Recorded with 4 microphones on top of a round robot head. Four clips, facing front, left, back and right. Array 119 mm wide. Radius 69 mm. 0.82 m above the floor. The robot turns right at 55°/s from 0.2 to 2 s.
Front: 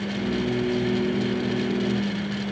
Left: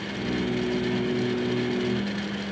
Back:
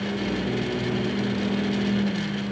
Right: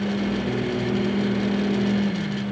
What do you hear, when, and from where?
Only background noise.